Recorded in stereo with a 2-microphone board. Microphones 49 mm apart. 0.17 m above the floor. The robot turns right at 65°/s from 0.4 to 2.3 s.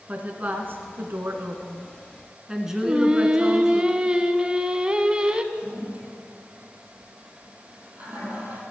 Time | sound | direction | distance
0.1 | a woman speaking | 135° right | 1.9 m
2.8 | singing | 20° right (ahead or behind) | 0.8 m
5.5 | a toilet flushing | 30° right (ahead or behind) | 5 m